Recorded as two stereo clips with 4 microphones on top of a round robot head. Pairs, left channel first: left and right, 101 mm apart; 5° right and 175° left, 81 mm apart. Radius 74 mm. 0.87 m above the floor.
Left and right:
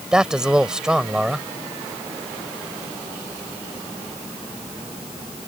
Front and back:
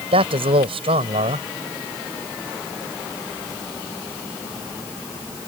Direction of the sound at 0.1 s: 170° right.